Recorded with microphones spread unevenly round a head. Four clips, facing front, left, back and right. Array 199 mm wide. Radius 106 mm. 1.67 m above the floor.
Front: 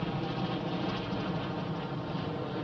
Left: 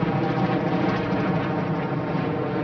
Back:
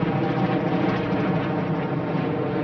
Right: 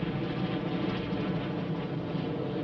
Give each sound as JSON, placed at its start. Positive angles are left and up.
{"t": 0.0, "sound": "an aircraft", "azimuth_deg": 145}